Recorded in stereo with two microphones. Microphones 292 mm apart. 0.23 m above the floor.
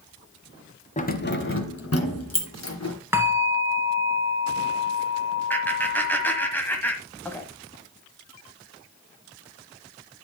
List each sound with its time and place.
1.0 s keys jangling: 25° left (ahead or behind), 1.0 m; by 3.0 s 65° left (ahead or behind), 2.5 m
3.1 s a bell: 10° right (ahead or behind), 1.0 m
5.5 s laughter: 5° left (ahead or behind), 1.2 m